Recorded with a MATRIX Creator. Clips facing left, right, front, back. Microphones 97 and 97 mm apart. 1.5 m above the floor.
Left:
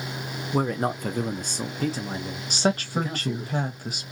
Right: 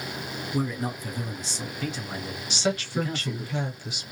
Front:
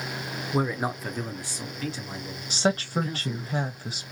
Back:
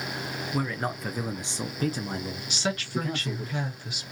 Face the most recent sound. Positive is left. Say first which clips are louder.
# left 3 dB, front 6 dB
turn(degrees=50)